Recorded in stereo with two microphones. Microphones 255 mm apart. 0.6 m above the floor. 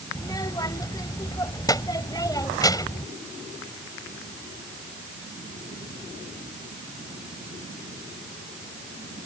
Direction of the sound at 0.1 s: 15° left (ahead or behind).